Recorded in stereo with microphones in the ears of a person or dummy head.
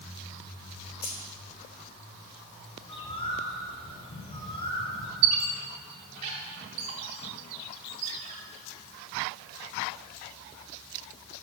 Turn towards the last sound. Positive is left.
turn(degrees=-35)  # may be behind; listen again after turning